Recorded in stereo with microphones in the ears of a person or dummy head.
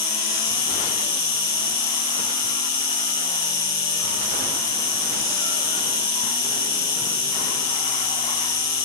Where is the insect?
25° left (ahead or behind), 1.9 m.